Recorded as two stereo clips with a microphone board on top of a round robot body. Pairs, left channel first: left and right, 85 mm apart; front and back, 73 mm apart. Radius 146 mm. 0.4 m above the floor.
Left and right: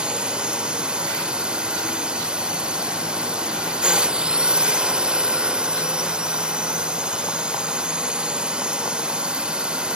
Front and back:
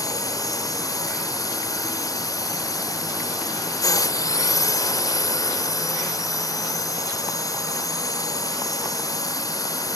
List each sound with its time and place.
0.0 s a drone: 15° right